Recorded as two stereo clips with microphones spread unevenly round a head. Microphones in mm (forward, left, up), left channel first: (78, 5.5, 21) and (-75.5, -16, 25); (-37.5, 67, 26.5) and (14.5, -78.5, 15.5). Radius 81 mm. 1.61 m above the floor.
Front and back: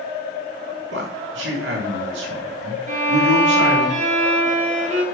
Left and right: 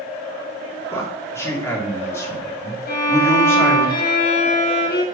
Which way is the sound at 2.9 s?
140° left.